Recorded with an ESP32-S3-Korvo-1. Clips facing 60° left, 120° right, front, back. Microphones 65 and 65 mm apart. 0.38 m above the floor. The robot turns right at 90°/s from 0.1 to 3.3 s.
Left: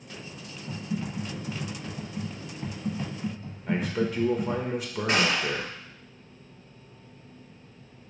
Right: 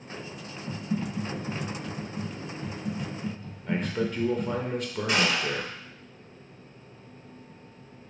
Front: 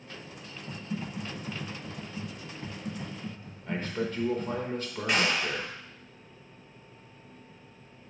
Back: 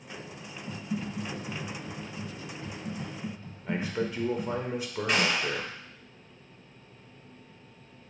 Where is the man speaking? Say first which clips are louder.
Left 1 dB, back 1 dB; 135° left, 0.8 m.